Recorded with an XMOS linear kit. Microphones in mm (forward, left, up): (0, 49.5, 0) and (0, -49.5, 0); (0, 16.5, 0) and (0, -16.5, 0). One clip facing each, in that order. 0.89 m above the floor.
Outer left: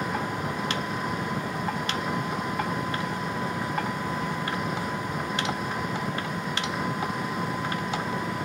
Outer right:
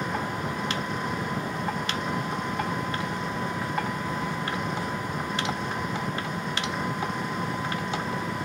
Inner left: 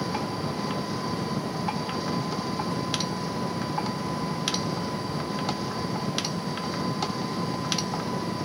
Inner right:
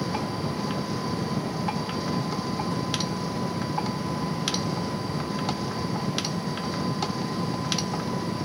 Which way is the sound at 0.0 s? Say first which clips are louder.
Even, even; 5° left (ahead or behind).